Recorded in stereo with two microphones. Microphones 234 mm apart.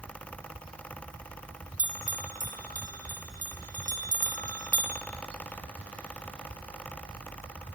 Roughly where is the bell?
Right.